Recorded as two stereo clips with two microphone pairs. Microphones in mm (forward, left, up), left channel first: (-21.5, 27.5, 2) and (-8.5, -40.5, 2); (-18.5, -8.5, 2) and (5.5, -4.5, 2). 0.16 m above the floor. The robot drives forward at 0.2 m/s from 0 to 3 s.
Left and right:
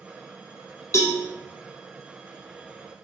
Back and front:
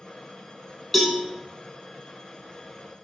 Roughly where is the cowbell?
Left.